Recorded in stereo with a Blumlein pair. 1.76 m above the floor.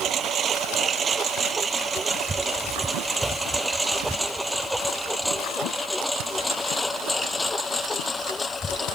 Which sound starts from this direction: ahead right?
A lawn mower, at 0.0 s.